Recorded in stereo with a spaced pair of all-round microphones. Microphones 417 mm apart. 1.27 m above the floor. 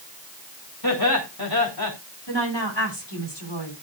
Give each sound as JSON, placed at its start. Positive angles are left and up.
{"t": 0.8, "sound": "laughter", "side_deg": 60, "distance_m": 6.0}
{"t": 2.3, "sound": "a woman speaking", "side_deg": 85, "distance_m": 8.0}